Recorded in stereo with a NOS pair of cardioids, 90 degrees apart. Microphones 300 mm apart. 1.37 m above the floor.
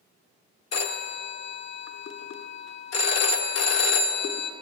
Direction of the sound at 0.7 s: 60° left.